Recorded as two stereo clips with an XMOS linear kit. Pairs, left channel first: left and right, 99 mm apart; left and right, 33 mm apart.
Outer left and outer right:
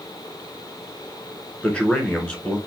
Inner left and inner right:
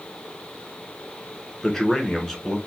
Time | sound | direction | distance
1.6 | a man speaking | 15° left (ahead or behind) | 1.5 m